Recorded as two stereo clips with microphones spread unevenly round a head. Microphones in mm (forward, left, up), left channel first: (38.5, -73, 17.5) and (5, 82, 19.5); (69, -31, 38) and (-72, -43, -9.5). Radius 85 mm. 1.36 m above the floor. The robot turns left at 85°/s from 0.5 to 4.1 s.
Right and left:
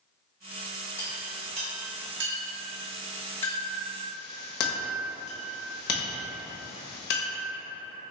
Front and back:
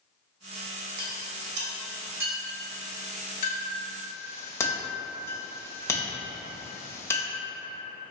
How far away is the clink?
About 1.1 m.